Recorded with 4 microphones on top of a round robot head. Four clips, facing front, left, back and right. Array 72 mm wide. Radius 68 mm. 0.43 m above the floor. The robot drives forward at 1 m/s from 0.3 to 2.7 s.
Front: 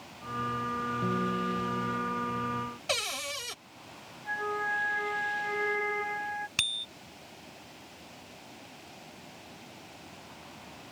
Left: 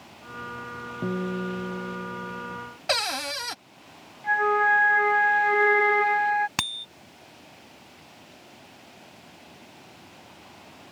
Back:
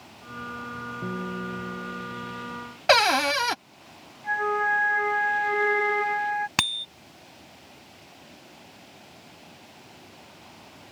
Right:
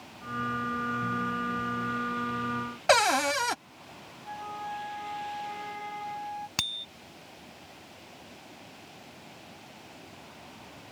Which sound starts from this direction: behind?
A bicycle bell, at 6.6 s.